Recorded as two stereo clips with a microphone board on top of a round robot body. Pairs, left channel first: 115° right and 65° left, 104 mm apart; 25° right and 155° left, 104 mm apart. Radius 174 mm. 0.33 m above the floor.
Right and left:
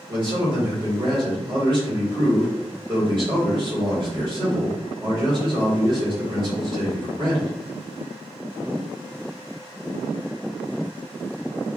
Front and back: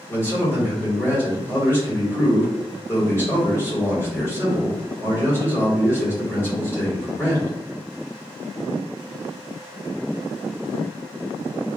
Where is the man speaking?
35° left, 1.9 m.